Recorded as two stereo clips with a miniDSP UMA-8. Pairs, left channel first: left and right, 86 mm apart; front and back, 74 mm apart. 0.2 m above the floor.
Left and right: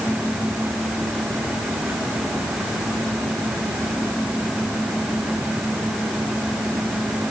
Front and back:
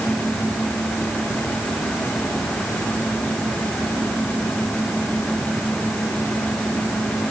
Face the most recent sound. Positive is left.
No sound to turn to.